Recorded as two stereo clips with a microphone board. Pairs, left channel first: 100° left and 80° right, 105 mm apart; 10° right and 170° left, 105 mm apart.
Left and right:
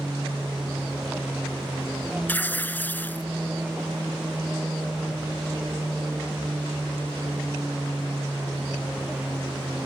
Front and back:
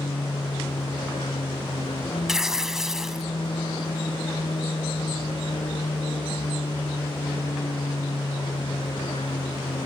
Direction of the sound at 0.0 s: Straight ahead.